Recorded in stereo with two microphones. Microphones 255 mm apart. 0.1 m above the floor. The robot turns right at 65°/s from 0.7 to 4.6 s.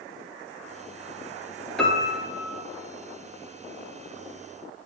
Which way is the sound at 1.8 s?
5° left.